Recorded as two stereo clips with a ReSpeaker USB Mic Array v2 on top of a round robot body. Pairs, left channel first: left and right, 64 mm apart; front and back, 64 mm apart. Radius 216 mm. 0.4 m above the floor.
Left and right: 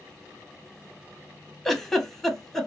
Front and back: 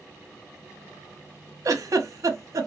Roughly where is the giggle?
Behind.